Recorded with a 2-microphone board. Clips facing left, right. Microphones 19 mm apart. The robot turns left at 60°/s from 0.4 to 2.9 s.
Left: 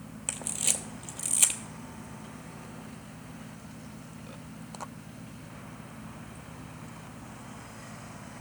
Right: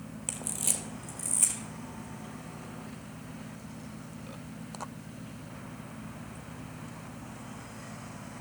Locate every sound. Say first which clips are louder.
0.3 s a camera shutter: left 3 dB; 10° left (ahead or behind), 0.7 m; by 1.6 s 80° left, 0.7 m